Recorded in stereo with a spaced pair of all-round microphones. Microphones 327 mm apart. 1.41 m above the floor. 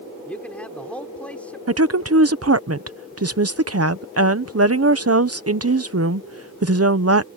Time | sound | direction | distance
0.3 | a man speaking | 5° left (ahead or behind) | ?
1.7 | a woman speaking | 45° right (ahead or behind) | ?